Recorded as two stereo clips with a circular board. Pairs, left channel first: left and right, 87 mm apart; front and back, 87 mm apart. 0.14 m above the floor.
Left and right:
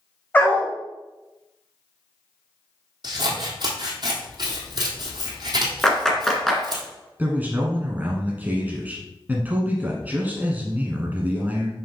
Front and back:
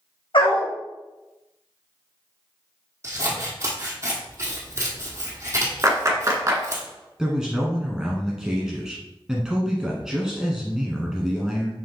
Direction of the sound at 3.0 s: 125° right.